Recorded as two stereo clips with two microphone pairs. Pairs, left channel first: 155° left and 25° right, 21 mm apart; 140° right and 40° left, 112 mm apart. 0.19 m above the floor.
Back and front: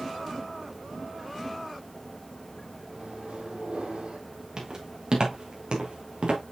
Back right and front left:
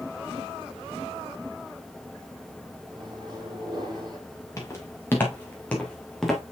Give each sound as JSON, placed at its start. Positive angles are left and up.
{"t": 2.9, "sound": "a microwave", "azimuth_deg": -10, "distance_m": 5.0}
{"t": 4.6, "sound": "footsteps", "azimuth_deg": -75, "distance_m": 4.0}